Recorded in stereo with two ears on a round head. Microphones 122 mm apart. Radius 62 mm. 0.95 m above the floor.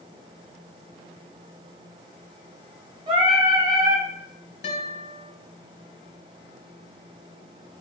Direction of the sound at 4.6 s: 55° left (ahead or behind).